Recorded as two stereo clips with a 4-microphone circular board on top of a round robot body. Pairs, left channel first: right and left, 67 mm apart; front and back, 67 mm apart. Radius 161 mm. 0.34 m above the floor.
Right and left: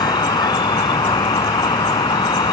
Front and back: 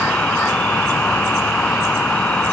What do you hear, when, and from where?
0.0 s an insect: 75° right